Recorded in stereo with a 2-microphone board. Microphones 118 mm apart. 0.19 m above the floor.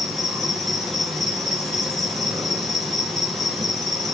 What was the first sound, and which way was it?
An insect, centre (ahead or behind).